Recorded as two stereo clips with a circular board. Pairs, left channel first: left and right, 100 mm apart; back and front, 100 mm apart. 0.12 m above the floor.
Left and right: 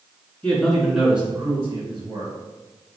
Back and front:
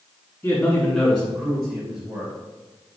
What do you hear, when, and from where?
0.4 s a man speaking: 145° left, 1.4 m; by 2.3 s 55° right, 2.0 m